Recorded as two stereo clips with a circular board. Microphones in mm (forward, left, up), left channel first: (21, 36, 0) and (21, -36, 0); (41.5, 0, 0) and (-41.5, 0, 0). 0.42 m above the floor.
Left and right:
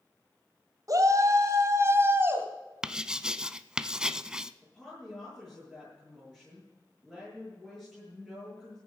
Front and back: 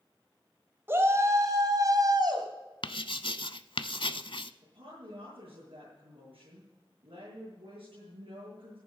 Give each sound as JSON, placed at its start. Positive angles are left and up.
{"t": 0.9, "sound": "a shout", "azimuth_deg": -120, "distance_m": 2.0}
{"t": 2.8, "sound": "writing", "azimuth_deg": -10, "distance_m": 0.5}
{"t": 4.6, "sound": "a woman speaking", "azimuth_deg": 180, "distance_m": 7.5}